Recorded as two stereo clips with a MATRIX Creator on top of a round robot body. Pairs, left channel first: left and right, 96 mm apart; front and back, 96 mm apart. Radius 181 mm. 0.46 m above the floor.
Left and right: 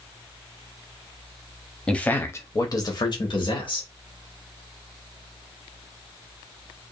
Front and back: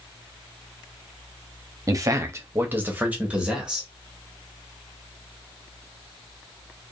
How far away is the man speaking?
About 0.9 m.